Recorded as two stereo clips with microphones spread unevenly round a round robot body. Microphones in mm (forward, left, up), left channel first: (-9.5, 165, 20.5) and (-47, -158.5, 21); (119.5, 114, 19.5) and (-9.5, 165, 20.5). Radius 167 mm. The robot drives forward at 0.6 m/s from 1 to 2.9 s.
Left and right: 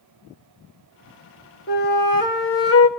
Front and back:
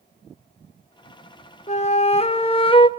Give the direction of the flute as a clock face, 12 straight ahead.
11 o'clock.